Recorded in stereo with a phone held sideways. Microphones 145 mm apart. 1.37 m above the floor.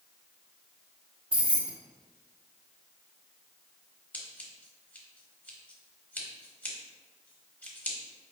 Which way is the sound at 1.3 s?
35° right (ahead or behind).